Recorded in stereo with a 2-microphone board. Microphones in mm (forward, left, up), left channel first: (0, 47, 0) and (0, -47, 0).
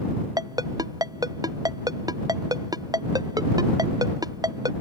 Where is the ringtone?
40° right (ahead or behind).